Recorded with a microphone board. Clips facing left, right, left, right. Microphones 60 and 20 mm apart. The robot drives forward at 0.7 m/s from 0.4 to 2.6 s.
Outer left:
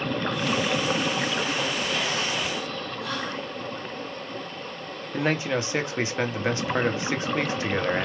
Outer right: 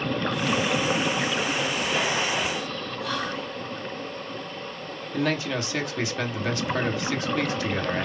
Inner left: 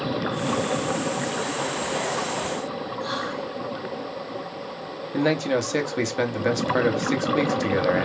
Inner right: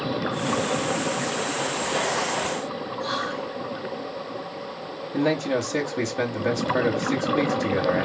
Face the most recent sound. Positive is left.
turn(degrees=25)  # may be behind; listen again after turning